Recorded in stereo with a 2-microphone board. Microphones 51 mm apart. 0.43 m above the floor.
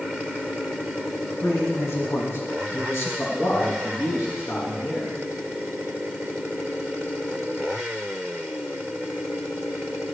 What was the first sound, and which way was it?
A man speaking, 65° left (ahead or behind).